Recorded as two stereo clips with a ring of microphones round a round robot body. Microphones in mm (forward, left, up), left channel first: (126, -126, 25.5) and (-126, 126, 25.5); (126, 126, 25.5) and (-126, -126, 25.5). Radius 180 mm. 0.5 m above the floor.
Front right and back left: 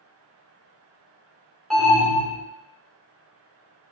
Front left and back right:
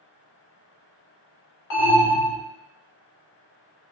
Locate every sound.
1.7 s an alarm: 45° left, 1.6 m